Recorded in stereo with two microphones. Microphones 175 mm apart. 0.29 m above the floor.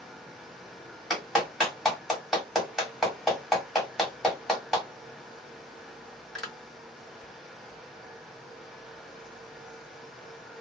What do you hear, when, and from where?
1.1 s a clap: centre (ahead or behind), 1.5 m